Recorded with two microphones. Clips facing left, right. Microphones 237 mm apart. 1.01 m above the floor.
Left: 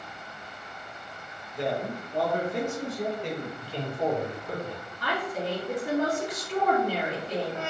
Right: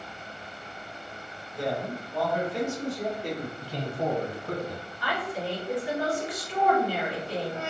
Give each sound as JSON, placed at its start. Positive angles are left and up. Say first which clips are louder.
{"t": 1.6, "sound": "a man speaking", "louder": "left 1 dB", "side_deg": 15, "distance_m": 0.9}
{"t": 3.6, "sound": "a man speaking", "louder": "left 2 dB", "side_deg": -40, "distance_m": 1.0}
{"t": 5.0, "sound": "a woman speaking", "louder": "left 1 dB", "side_deg": 45, "distance_m": 1.3}